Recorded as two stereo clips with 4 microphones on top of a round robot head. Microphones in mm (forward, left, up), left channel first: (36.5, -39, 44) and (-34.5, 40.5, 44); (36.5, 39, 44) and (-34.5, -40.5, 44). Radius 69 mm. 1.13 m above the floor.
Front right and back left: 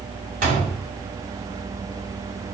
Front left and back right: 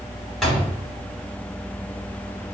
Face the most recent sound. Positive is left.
turn(degrees=135)